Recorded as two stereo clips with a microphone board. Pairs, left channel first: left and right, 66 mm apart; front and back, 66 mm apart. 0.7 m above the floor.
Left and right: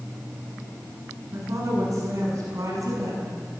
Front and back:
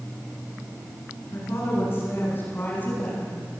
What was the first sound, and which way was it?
A woman speaking, 50° right.